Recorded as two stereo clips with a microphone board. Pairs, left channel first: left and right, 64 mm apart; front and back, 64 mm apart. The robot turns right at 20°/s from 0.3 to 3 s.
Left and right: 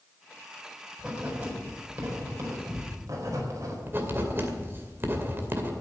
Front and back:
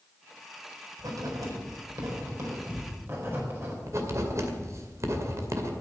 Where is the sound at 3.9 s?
145° right, 2 m.